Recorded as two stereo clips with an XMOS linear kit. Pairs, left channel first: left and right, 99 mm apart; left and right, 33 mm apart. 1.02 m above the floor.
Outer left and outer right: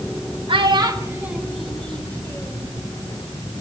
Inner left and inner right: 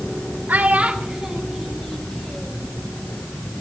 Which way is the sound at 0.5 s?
55° right (ahead or behind).